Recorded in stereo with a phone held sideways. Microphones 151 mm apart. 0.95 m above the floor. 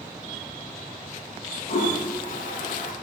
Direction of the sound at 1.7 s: 60° left (ahead or behind).